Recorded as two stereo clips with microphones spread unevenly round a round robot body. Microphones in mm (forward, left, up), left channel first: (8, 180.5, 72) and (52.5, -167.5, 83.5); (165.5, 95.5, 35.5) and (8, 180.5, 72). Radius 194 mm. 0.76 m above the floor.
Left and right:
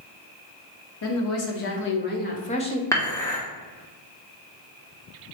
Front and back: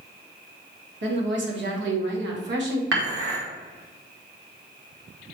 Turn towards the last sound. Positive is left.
turn(degrees=180)